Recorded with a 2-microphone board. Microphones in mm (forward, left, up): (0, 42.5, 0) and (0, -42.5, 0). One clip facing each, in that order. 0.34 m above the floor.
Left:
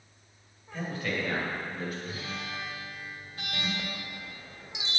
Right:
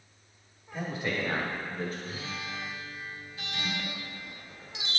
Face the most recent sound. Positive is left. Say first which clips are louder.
# even
turn(degrees=20)  # may be behind; listen again after turning